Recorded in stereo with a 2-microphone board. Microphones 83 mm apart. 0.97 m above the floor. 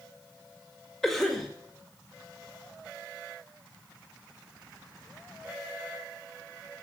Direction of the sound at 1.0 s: 5° left (ahead or behind).